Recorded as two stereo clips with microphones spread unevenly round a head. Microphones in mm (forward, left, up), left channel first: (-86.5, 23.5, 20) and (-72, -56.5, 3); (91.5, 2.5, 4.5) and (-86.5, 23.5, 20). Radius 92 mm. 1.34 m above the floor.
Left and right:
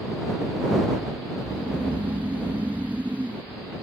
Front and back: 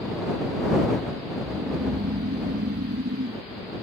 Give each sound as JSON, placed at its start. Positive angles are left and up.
{"t": 1.4, "sound": "snoring", "azimuth_deg": -150}